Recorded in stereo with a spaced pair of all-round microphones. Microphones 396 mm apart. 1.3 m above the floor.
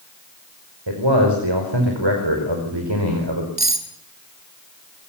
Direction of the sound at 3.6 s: 80° right.